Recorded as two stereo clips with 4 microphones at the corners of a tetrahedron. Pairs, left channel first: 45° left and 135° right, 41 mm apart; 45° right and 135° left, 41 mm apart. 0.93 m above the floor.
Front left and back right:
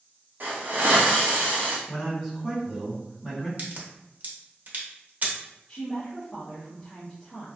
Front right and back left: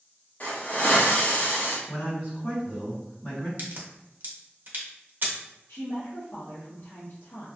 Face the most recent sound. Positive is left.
turn(degrees=-25)